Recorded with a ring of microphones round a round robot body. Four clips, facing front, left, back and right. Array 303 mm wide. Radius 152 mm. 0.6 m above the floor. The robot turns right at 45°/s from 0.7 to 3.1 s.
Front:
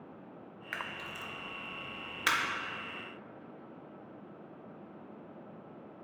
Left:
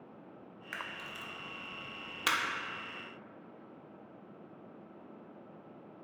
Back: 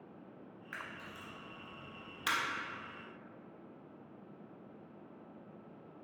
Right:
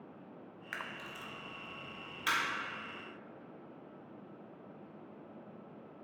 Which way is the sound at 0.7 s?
10° right.